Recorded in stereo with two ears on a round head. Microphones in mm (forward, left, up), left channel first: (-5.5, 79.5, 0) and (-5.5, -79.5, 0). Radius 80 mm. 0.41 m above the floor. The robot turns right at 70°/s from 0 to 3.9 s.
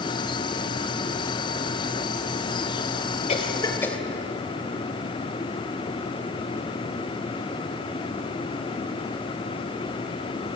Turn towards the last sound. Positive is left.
turn(degrees=10)  # may be behind; listen again after turning